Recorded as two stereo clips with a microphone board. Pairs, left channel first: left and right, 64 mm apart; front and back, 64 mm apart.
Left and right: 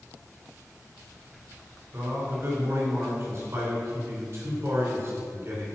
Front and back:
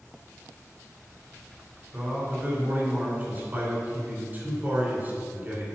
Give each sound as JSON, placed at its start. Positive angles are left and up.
{"t": 1.9, "sound": "a man speaking", "azimuth_deg": -125, "distance_m": 3.0}